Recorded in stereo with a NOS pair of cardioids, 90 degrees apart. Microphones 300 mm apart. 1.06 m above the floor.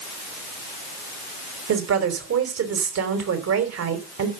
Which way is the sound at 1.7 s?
55° right.